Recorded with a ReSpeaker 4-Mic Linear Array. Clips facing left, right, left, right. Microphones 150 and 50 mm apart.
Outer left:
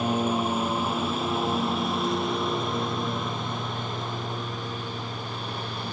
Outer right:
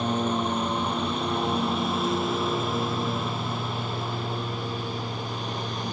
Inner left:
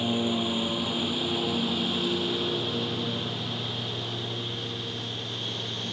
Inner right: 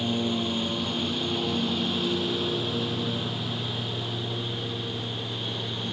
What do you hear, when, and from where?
0.0 s a lawn mower: 10° left (ahead or behind); by 5.9 s 15° right (ahead or behind)